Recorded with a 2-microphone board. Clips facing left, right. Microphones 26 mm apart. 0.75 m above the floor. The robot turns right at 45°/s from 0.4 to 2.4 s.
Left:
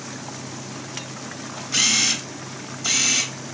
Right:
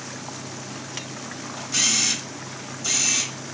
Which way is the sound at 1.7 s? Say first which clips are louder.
Left 3 dB; 25° left (ahead or behind).